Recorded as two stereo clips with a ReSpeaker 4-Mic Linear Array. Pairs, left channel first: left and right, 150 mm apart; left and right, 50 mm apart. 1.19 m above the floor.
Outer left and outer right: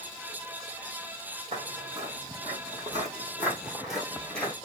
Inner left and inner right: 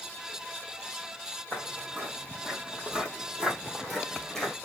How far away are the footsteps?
About 1.6 m.